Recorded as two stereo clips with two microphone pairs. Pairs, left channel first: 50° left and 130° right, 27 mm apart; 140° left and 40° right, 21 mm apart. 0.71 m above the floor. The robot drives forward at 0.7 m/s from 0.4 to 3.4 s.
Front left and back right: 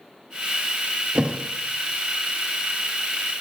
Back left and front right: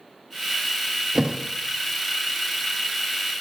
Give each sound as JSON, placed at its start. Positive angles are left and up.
{"t": 1.1, "sound": "a thud", "azimuth_deg": -85, "distance_m": 2.0}